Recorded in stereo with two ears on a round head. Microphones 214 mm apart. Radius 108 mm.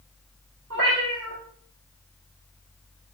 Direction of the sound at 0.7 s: 55° right (ahead or behind).